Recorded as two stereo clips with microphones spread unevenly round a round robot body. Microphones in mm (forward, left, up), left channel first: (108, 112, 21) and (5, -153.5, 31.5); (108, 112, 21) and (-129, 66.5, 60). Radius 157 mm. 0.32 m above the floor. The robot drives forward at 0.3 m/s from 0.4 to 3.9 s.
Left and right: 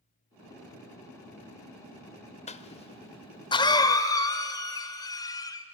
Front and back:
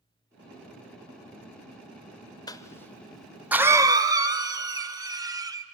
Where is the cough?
40° left, 0.9 m; by 5.6 s 115° left, 0.8 m.